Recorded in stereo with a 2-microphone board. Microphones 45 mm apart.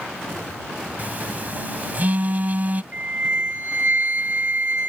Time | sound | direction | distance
1.0 | a phone buzzing | 40° right (ahead or behind) | ?
2.9 | a flute | 35° right (ahead or behind) | ?